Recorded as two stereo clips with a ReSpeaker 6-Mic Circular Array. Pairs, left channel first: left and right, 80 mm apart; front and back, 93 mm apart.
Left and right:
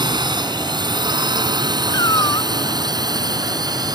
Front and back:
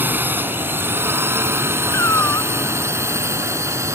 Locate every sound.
0.0 s a drone: 110° right; by 4.0 s 125° right
1.9 s a cat meowing: 60° left